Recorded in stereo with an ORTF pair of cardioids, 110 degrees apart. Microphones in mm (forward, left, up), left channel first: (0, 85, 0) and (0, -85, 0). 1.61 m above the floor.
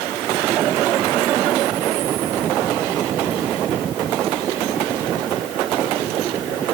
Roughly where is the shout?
I don't hear a shout.